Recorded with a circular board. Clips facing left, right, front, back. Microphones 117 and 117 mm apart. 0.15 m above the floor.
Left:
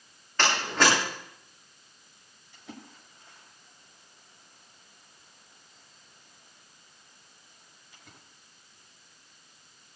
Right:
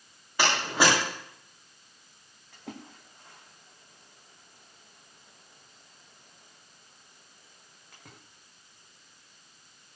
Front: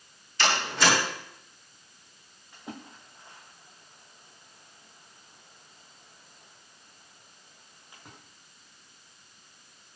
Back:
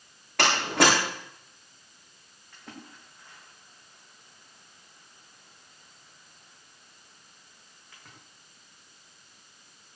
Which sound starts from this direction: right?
A splash, at 2.5 s.